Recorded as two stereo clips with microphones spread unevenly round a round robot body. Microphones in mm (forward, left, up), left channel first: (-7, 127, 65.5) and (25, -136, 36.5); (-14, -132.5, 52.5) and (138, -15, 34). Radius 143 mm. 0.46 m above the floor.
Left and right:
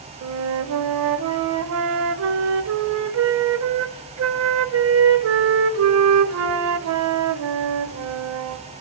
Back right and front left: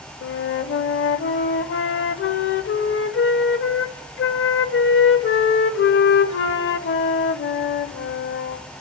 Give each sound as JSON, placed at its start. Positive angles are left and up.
{"t": 0.2, "sound": "a flute", "azimuth_deg": -115, "distance_m": 0.7}